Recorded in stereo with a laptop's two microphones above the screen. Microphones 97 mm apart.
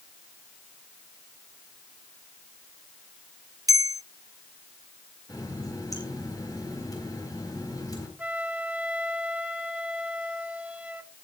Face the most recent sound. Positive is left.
turn(degrees=-15)  # may be behind; listen again after turning